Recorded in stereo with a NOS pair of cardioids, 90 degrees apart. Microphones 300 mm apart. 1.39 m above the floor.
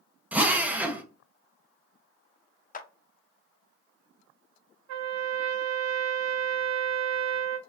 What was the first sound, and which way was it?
A drill, 5° right.